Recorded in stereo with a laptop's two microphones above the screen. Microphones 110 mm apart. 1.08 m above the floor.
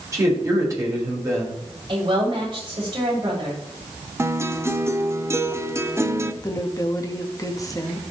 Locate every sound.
0.1 s a man speaking: 30° right (ahead or behind), 4.5 m
1.9 s a woman speaking: 50° right (ahead or behind), 5.5 m
4.2 s a guitar: 25° right (ahead or behind), 0.8 m
6.4 s a woman speaking: 30° left (ahead or behind), 1.4 m